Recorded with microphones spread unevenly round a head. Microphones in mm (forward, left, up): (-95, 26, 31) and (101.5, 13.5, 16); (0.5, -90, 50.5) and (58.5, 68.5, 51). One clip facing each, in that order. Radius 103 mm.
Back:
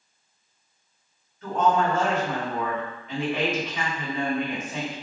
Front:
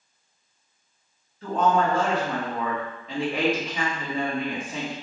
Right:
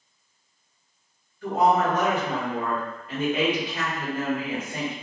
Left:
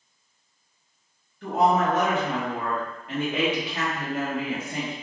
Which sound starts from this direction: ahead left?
A woman speaking, at 1.4 s.